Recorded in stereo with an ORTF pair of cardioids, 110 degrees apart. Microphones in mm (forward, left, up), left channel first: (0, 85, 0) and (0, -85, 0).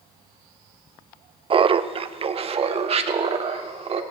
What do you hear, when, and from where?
1.5 s laughter: 30° right, 0.7 m; by 4.0 s 35° right, 2 m